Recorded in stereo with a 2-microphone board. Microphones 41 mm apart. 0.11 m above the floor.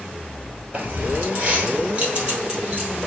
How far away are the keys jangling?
About 1.5 m.